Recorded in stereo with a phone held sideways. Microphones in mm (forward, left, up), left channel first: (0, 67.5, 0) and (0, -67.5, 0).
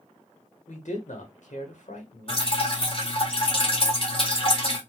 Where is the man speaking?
65° left (ahead or behind), 1.8 m.